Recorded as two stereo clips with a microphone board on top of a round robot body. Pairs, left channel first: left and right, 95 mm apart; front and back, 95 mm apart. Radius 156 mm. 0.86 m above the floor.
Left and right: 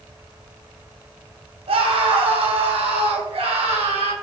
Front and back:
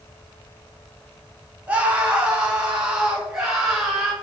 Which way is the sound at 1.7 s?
105° right.